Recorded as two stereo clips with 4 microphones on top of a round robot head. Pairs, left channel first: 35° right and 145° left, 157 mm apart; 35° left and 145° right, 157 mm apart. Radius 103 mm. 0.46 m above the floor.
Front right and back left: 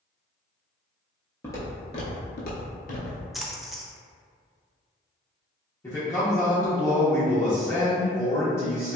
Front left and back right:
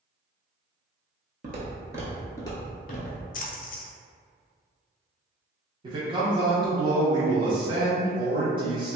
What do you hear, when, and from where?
1.4 s footsteps: 110° right, 0.6 m; by 3.2 s 10° left, 0.8 m
3.3 s a splash: 55° left, 0.5 m
5.8 s a man speaking: 100° right, 0.9 m